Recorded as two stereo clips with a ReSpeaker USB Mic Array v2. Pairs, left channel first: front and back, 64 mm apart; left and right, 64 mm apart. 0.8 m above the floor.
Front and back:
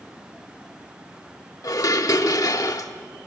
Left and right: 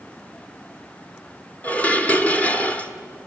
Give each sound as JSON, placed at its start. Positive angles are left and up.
{"t": 1.6, "sound": "dishes clattering", "azimuth_deg": 20, "distance_m": 1.2}